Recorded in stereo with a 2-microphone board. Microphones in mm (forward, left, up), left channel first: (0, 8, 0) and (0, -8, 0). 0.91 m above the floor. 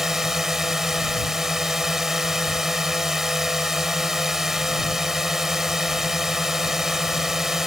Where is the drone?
25° right (ahead or behind).